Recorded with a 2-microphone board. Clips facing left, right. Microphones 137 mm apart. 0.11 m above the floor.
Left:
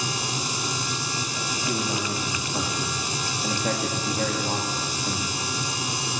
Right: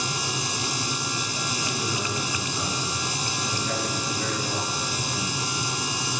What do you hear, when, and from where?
1.7 s a man speaking: 55° left (ahead or behind), 8.5 m